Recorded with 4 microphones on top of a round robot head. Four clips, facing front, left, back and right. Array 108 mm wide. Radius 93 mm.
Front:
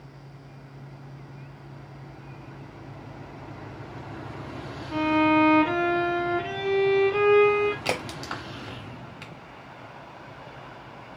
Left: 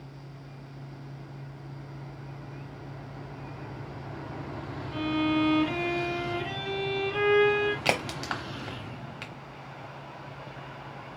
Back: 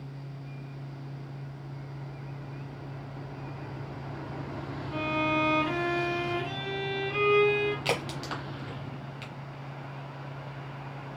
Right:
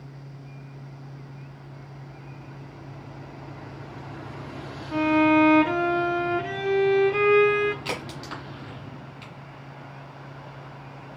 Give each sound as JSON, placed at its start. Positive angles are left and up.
{"t": 4.9, "sound": "a violin", "azimuth_deg": -55, "distance_m": 1.0}
{"t": 7.8, "sound": "a crack", "azimuth_deg": 80, "distance_m": 0.8}